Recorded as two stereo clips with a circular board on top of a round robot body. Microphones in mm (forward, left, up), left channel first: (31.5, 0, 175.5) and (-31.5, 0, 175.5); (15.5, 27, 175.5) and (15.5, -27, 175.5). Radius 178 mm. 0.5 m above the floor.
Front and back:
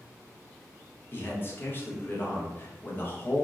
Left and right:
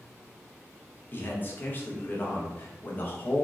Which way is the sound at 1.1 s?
45° left.